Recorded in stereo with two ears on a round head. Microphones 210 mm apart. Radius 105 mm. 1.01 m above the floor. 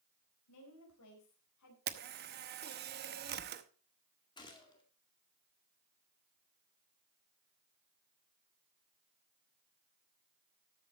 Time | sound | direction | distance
0.5 | a woman speaking | 80° left | 4.5 m
1.9 | a camera shutter | 45° right (ahead or behind) | 0.9 m
4.4 | a gunshot | 20° left (ahead or behind) | 1.9 m